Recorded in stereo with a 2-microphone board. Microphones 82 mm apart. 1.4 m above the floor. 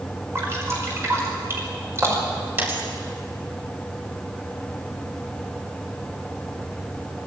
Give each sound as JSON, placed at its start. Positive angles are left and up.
{"t": 0.3, "sound": "dripping", "side_deg": -30, "distance_m": 5.0}
{"t": 2.6, "sound": "a dropped coin", "side_deg": -25, "distance_m": 4.0}